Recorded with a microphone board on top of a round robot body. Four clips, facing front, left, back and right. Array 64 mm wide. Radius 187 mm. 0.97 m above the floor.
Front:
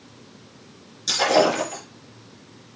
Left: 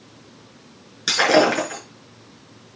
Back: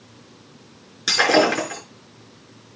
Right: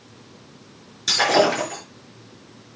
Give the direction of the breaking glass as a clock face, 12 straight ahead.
7 o'clock.